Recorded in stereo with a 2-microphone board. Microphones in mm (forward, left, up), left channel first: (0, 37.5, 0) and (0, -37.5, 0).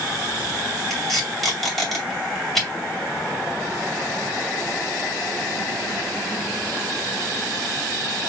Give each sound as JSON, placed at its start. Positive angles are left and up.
{"t": 0.9, "sound": "tape being pulled", "side_deg": 0, "distance_m": 2.0}